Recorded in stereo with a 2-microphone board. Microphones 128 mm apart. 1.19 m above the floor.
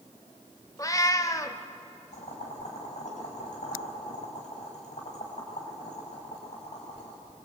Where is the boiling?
70° left (ahead or behind), 5.5 m.